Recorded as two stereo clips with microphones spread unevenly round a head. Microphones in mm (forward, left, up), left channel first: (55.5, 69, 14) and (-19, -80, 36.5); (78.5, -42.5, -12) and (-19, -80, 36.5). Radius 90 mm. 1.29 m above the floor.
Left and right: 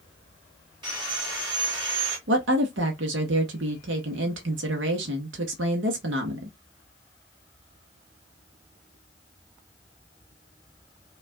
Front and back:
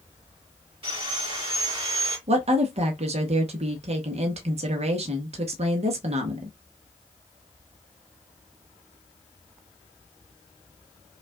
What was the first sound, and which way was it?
Sawing, straight behind.